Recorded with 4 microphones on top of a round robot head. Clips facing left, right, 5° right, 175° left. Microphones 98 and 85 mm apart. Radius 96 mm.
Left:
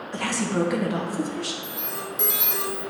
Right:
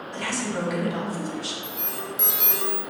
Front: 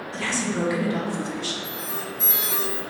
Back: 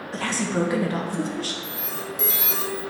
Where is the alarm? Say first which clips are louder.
Even, even; straight behind, 1.2 m.